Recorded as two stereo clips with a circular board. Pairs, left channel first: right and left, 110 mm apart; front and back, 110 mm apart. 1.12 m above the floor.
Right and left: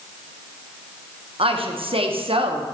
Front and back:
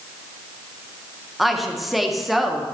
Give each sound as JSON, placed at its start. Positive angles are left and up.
{"t": 1.4, "sound": "a woman speaking", "azimuth_deg": 90, "distance_m": 0.9}